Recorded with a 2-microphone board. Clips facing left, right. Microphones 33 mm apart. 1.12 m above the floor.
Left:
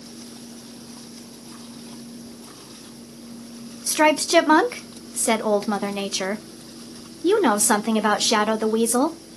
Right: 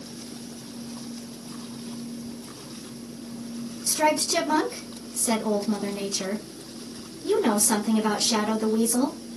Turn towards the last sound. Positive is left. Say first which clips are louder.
# left 5 dB
turn(degrees=70)  # may be behind; listen again after turning